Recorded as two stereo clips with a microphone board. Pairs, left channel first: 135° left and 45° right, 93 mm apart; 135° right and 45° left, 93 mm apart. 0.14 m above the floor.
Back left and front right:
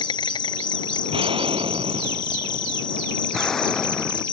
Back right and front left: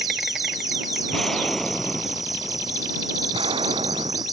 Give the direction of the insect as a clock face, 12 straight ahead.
8 o'clock.